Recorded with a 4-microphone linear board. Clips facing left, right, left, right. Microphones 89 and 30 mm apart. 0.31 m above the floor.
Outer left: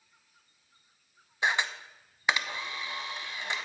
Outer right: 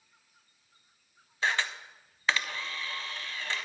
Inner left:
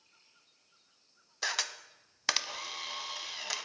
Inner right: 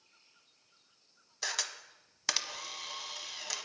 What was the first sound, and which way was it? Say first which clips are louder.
A camera shutter: outer left 1 dB, inner left 3 dB; 15° left (ahead or behind).